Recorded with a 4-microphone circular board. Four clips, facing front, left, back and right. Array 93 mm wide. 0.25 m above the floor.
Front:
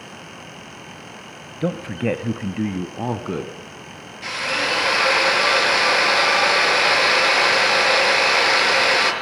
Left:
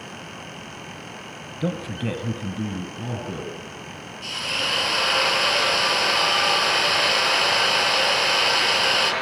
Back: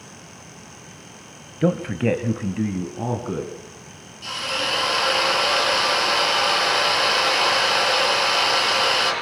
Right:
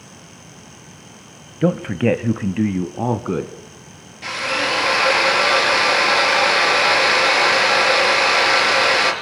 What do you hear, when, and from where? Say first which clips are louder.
1.6 s a man speaking: right 10 dB, back 2 dB; 110° right, 1.0 m; by 3.5 s 70° right, 2.0 m
4.2 s a drill: right 8 dB, front 3 dB; 45° right, 5.5 m